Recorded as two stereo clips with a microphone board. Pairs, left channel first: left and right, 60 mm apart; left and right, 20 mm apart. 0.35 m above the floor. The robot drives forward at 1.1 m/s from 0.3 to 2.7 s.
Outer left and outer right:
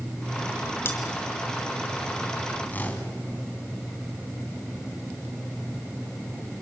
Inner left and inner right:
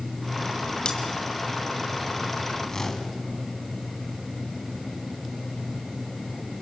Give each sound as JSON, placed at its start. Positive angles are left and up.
{"t": 0.8, "sound": "cutlery clinking", "side_deg": 40, "distance_m": 2.5}
{"t": 2.7, "sound": "a whoosh", "side_deg": 30, "distance_m": 3.0}